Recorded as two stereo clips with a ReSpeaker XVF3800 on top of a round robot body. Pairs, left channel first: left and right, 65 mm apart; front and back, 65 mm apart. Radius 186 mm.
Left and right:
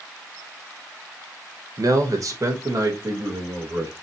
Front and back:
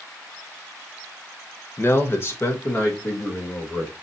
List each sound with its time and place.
1.8 s a man speaking: 55° right, 1.1 m; by 3.9 s 50° right, 2.5 m